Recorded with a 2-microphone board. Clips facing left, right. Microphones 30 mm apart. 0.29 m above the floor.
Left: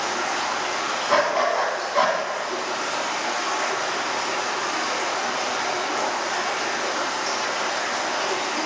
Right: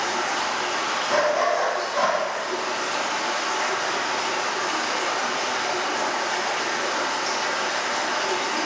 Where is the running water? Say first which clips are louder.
Even; 20° right (ahead or behind), 1.4 m.